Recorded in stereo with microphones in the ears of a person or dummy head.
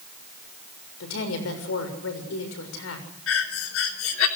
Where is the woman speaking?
75° left (ahead or behind), 6.5 m.